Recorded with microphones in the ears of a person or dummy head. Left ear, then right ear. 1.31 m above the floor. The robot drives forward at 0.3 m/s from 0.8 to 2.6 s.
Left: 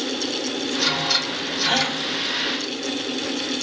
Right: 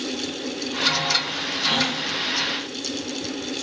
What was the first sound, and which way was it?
A gasp, 30° left (ahead or behind).